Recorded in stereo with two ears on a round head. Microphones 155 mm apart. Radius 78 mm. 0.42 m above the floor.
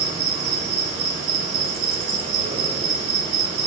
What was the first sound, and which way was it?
An insect, 35° right (ahead or behind).